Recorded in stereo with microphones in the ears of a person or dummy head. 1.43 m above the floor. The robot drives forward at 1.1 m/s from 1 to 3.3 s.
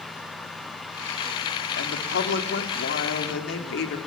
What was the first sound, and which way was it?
A woman speaking, 85° left.